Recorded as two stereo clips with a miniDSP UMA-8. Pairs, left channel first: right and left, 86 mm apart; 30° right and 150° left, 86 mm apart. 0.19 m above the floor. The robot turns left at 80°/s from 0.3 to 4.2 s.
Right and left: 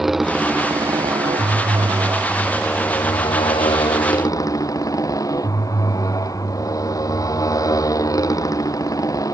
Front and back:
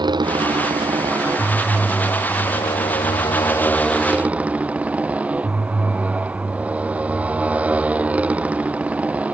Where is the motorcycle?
175° left; by 9.3 s 135° right.